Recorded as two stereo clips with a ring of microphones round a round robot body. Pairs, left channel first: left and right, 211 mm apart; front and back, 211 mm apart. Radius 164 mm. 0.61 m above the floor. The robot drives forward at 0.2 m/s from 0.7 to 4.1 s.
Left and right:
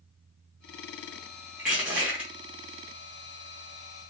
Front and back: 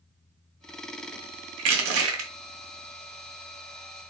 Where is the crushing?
175° right, 0.5 m.